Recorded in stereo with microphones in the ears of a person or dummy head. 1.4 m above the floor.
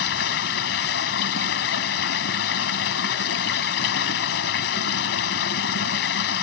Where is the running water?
60° left (ahead or behind).